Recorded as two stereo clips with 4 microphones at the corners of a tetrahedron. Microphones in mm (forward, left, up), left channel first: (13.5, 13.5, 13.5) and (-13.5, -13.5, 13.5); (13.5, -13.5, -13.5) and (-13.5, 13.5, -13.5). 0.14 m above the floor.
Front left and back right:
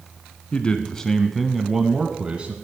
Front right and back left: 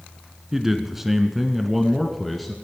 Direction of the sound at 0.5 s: 70° left.